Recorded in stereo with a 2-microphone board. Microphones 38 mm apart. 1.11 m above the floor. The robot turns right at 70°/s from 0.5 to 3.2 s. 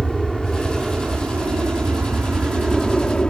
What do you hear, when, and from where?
0.0 s an aircraft: centre (ahead or behind); by 3.3 s 15° left (ahead or behind)